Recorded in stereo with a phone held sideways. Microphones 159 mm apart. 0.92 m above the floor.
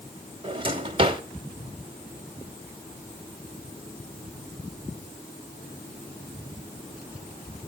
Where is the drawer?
35° right (ahead or behind), 1.3 m.